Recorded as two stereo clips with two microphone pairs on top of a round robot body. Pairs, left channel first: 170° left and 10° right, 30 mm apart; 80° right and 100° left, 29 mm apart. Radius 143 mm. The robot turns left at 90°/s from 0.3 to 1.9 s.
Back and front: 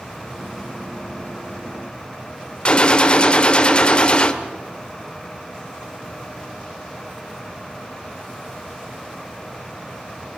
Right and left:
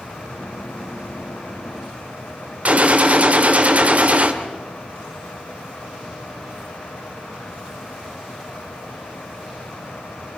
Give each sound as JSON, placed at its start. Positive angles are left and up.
{"t": 2.6, "sound": "a gunshot", "azimuth_deg": 130, "distance_m": 1.9}